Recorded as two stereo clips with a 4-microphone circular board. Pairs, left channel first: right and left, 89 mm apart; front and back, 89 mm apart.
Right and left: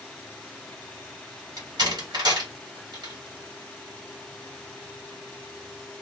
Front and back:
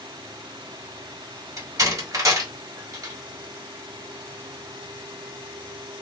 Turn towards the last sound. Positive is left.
turn(degrees=130)